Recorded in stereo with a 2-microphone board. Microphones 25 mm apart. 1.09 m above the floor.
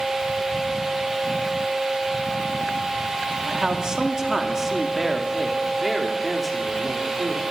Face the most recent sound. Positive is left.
turn(degrees=10)  # may be behind; listen again after turning